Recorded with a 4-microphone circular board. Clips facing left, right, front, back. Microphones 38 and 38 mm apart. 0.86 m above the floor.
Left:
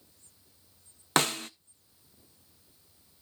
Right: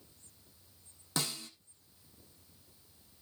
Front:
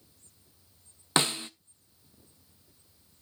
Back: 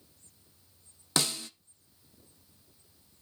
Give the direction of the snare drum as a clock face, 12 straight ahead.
10 o'clock.